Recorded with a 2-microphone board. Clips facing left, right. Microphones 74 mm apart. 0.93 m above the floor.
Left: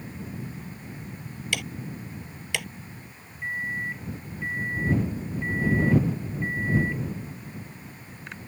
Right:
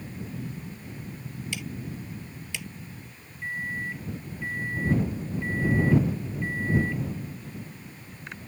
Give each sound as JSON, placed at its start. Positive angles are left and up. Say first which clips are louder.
{"t": 1.5, "sound": "ticking", "louder": "left 5 dB", "side_deg": 65}
{"t": 3.4, "sound": "a microwave", "louder": "left 2 dB", "side_deg": 15}